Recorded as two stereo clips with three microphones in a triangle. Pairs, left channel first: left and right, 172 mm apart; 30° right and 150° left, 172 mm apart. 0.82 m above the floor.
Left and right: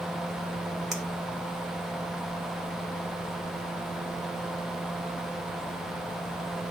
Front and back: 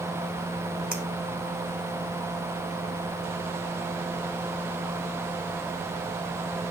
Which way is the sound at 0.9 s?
175° right.